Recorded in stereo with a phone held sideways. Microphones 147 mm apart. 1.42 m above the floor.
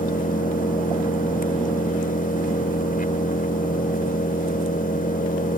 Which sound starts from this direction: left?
An engine running, at 0.0 s.